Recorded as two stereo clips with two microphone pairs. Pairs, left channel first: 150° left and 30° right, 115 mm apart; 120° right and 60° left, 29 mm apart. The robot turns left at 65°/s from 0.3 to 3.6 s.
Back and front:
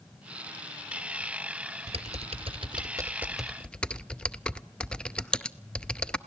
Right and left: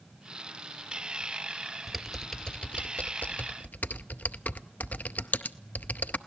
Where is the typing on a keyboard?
15° right, 0.6 m; by 6.2 s 130° right, 0.6 m.